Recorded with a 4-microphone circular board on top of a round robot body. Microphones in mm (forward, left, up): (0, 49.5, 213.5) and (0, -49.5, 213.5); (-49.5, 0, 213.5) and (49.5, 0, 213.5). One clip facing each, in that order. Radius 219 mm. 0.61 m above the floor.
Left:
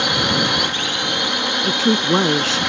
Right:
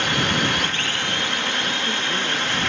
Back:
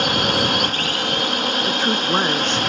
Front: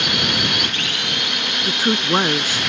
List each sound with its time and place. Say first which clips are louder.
0.0 s a drone: left 2 dB, back 4 dB; 160° left
1.6 s a woman speaking: left 9 dB, front 4 dB; 80° left